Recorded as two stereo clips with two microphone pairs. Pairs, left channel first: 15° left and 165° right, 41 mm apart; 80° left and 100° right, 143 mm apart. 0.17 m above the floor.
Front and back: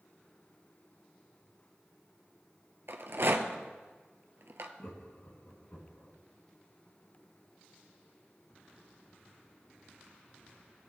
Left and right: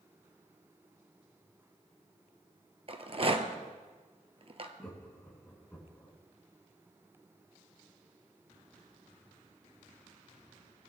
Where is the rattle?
145° right, 0.9 m.